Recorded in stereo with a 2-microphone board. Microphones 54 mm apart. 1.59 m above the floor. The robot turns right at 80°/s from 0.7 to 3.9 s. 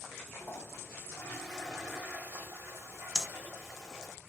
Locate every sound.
0.3 s a toilet flushing: 110° left, 1.9 m; by 4.2 s 5° left, 1.9 m
3.1 s breathing: 10° left (ahead or behind), 0.5 m; by 3.3 s 5° left (ahead or behind), 0.5 m